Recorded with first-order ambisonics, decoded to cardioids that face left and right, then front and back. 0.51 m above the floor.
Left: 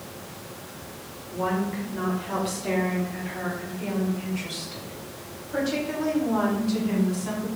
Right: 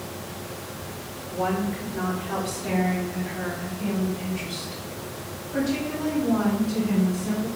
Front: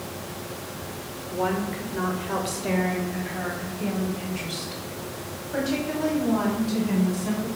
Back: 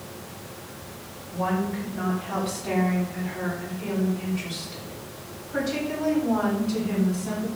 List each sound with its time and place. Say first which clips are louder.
1.3 s a woman speaking: right 1 dB, front 1 dB; 5° right, 2.0 m; by 7.5 s 25° left, 4.5 m